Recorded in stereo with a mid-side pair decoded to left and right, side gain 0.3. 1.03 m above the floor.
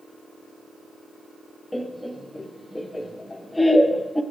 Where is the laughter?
20° left, 0.7 m.